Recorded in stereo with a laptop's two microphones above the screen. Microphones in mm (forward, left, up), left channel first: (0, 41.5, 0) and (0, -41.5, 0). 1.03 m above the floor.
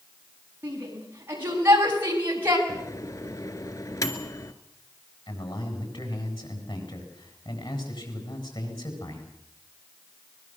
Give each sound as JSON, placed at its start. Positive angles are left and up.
{"t": 0.6, "sound": "a shout", "side_deg": -30, "distance_m": 9.0}
{"t": 2.7, "sound": "a microwave", "side_deg": 50, "distance_m": 2.0}
{"t": 5.3, "sound": "a man speaking", "side_deg": 80, "distance_m": 8.5}